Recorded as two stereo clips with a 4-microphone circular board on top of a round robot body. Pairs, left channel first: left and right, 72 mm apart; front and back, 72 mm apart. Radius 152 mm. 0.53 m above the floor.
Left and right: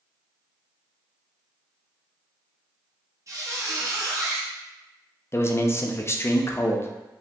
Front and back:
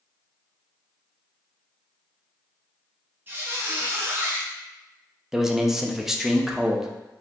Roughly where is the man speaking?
Left.